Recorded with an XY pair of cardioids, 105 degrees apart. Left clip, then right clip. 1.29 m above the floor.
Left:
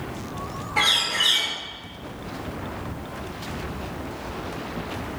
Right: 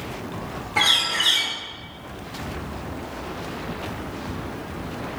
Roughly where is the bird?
Ahead.